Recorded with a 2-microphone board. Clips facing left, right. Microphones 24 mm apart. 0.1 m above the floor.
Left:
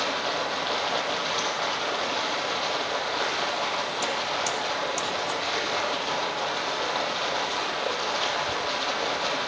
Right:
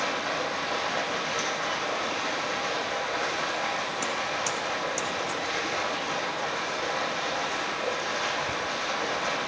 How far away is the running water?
About 3.5 m.